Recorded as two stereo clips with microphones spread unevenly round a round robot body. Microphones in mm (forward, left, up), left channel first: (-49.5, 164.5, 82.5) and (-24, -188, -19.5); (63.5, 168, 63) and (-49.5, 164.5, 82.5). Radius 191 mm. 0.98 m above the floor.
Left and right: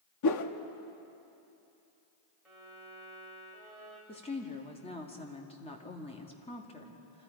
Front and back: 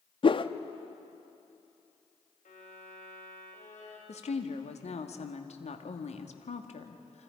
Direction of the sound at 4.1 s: 15° left.